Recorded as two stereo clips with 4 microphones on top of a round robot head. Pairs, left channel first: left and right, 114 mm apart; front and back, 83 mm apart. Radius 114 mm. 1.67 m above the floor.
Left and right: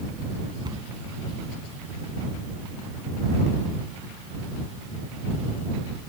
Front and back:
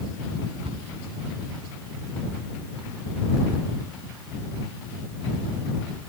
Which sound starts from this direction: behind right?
A cupboard door, at 0.6 s.